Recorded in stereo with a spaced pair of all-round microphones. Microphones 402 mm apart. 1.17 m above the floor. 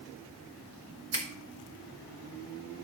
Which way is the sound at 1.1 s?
35° right (ahead or behind).